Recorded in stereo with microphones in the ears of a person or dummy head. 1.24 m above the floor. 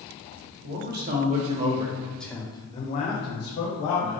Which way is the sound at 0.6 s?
55° right (ahead or behind).